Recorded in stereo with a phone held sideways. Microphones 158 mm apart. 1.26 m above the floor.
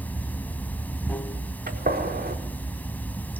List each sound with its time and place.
0.0 s running water: 10° left (ahead or behind), 1.2 m
1.7 s a gunshot: 80° right, 4.5 m